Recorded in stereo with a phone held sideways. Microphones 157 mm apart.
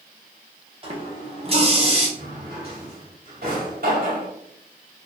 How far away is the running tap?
About 1.0 m.